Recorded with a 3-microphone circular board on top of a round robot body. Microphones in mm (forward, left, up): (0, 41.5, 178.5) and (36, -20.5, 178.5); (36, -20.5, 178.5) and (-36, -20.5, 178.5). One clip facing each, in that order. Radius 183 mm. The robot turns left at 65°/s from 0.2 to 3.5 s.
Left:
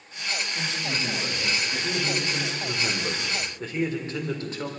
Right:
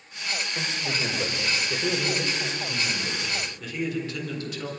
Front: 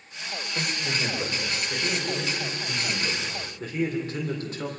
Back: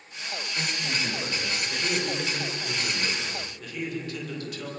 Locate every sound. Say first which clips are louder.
0.6 s a man speaking: even, front 2 dB; straight ahead, 5.5 m; by 2.2 s 110° right, 5.5 m
2.3 s a man speaking: left 1 dB, even; 135° left, 3.5 m; by 4.7 s 60° left, 3.5 m